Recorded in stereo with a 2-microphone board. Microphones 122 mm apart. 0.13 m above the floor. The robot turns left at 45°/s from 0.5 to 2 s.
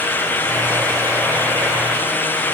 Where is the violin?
I don't hear a violin.